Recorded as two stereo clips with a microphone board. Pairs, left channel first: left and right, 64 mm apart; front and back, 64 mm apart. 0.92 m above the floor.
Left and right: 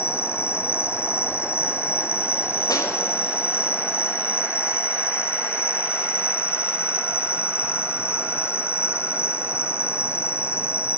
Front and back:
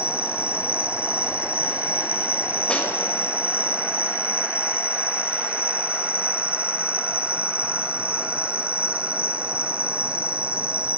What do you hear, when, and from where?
0.0 s an insect: 120° left, 0.9 m
2.7 s a snare drum: 75° left, 5 m